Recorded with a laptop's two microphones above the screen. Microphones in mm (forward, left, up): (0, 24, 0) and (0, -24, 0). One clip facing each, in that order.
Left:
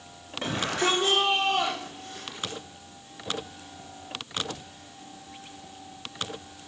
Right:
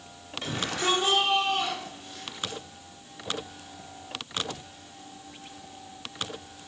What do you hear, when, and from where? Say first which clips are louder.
0.4 s a shout: left 2 dB; 45° left (ahead or behind), 2.5 m; by 2.6 s 65° left (ahead or behind), 3.5 m